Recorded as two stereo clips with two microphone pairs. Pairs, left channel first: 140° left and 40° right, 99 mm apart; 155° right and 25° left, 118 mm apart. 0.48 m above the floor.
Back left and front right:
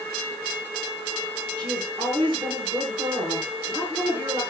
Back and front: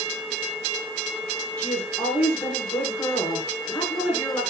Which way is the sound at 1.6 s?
80° right.